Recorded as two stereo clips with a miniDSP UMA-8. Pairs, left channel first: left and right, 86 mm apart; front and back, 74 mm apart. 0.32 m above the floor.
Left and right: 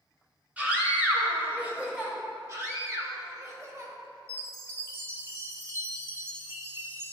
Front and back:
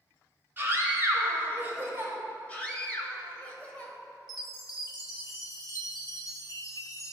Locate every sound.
0.6 s a scream: 150° right, 1.4 m
2.5 s a scream: 60° right, 1.2 m
4.3 s a chime: 30° right, 0.7 m